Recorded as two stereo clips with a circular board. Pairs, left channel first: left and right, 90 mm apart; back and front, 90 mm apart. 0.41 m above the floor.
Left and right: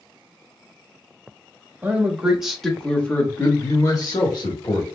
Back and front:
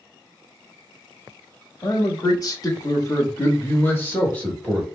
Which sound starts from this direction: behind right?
A man speaking, at 1.8 s.